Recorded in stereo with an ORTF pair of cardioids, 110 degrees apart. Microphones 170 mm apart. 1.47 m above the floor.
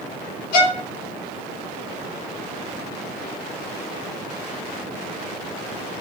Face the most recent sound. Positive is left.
turn(degrees=65)